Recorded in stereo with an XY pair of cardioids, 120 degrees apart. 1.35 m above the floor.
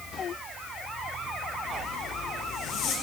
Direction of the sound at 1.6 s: 70° left.